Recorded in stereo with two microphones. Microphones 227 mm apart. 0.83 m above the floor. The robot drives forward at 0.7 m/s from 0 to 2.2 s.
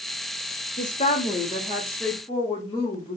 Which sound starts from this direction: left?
A woman speaking, at 0.8 s.